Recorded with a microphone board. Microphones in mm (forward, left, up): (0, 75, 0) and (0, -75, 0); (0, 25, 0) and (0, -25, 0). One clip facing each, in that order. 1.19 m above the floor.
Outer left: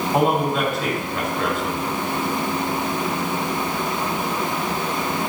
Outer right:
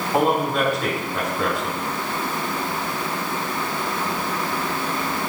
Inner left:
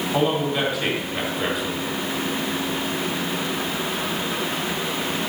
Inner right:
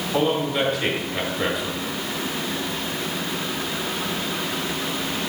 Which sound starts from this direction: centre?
A man speaking, at 0.1 s.